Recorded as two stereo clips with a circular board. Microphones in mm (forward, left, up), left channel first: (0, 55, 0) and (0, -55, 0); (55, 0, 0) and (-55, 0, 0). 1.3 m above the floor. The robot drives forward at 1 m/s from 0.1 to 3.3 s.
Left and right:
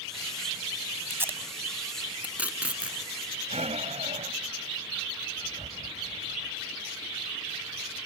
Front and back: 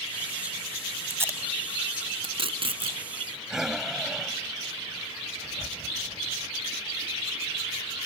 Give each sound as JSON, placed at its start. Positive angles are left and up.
{"t": 1.1, "sound": "tape being pulled", "azimuth_deg": -130}
{"t": 3.5, "sound": "breathing", "azimuth_deg": -95}